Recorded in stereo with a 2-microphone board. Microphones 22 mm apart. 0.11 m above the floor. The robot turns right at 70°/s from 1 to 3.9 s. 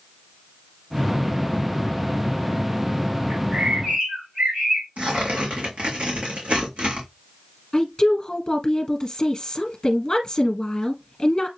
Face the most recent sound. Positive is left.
turn(degrees=30)  # may be behind; listen again after turning